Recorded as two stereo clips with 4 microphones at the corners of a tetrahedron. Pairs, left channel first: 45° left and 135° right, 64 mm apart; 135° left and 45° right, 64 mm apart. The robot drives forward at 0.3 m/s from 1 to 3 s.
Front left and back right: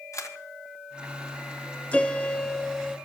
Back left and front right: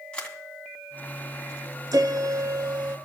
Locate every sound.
0.1 s a camera shutter: 65° left, 2 m
1.9 s a piano: 25° right, 0.7 m; by 3.0 s 40° right, 0.5 m